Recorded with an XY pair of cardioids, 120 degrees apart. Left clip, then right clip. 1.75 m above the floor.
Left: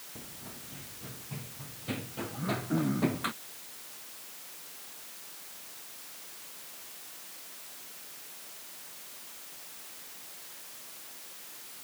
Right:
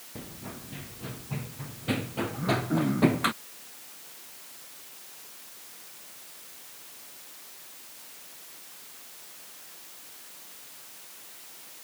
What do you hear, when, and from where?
0.1 s running footsteps: 40° right
2.3 s throat clearing: 15° right